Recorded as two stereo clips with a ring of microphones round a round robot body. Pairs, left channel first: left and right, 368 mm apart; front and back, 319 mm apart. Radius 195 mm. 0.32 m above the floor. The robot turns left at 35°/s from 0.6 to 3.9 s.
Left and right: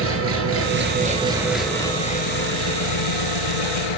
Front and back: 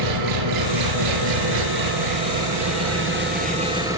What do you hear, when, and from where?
0.0 s an engine running: 145° right, 4 m; by 4.0 s 100° left, 4 m